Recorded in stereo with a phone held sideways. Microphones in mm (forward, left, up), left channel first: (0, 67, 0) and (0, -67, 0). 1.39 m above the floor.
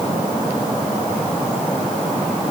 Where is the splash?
I don't hear a splash.